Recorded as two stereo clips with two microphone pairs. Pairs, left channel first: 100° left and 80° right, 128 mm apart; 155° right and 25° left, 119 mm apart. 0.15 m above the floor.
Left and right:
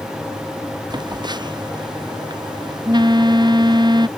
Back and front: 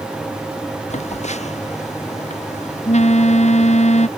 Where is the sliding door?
No sliding door in this recording.